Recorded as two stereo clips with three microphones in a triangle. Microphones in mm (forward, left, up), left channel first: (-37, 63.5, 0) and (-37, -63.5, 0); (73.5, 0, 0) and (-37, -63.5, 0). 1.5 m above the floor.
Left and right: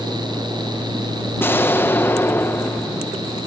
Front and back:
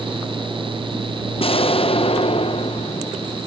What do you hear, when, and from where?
1.4 s an explosion: 25° left